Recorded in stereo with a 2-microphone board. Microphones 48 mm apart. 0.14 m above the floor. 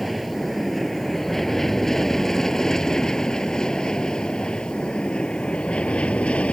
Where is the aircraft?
Centre (ahead or behind); by 6.5 s 25° left (ahead or behind).